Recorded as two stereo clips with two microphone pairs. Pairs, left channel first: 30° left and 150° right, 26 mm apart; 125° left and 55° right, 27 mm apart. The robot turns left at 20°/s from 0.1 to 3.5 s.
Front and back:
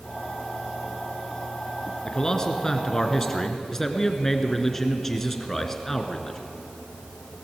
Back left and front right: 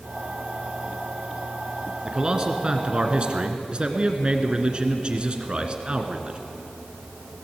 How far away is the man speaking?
About 1.9 m.